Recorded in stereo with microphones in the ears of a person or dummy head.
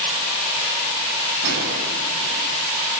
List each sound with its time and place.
1.4 s a gunshot: 60° right (ahead or behind), 3 m